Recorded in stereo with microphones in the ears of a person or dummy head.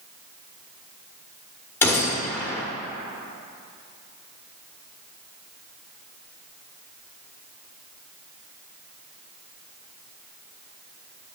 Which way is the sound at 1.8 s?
20° left (ahead or behind).